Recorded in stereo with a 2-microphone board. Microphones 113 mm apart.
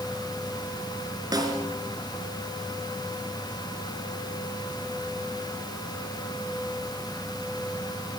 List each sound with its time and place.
1.3 s a snare drum: 35° right (ahead or behind), 3.5 m